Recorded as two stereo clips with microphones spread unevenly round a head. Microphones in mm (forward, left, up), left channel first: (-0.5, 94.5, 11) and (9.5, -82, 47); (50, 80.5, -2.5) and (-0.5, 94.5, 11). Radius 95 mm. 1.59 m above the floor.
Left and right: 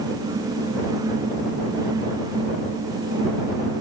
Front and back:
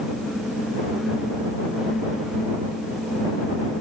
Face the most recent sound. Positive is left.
No sound to turn to.